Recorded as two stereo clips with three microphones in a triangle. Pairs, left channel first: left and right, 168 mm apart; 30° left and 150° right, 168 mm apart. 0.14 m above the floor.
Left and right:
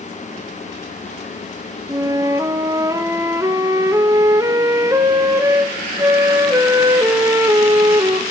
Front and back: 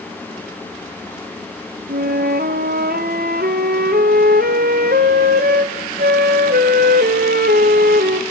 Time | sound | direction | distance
1.9 | a flute | 160° right | 1.2 m